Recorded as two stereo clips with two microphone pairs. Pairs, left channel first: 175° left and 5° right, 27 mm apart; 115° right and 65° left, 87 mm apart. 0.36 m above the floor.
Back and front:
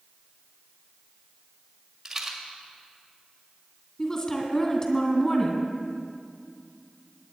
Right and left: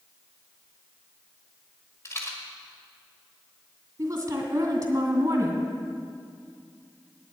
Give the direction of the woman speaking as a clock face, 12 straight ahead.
8 o'clock.